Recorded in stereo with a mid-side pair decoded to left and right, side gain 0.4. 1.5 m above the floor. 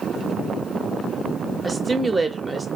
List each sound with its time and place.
1.6 s a woman speaking: 25° right, 0.8 m